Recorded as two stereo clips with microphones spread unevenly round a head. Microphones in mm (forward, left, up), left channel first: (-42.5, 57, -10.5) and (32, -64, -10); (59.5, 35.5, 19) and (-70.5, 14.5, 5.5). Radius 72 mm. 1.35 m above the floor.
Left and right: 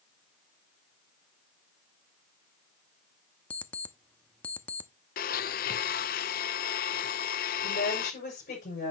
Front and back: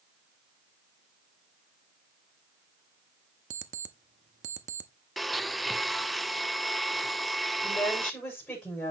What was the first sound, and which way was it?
An alarm clock, 160° right.